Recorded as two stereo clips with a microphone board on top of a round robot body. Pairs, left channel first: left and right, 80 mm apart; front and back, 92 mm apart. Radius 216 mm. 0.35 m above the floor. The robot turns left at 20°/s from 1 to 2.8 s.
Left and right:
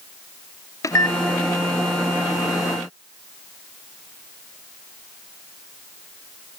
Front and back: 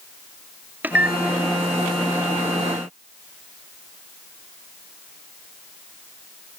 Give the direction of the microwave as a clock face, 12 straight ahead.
8 o'clock.